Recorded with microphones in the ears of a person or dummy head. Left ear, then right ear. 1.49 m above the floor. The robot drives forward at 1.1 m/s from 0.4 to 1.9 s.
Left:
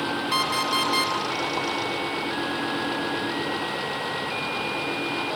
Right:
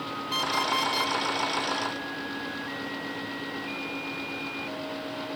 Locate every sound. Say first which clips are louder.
0.3 s an alarm clock: left 2 dB; 10° left (ahead or behind), 2.5 m; by 1.1 s 15° left (ahead or behind), 1.6 m